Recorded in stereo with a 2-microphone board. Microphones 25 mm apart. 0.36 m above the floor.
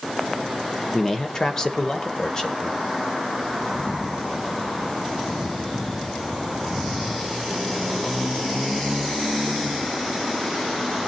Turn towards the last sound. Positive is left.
turn(degrees=25)  # may be behind; listen again after turning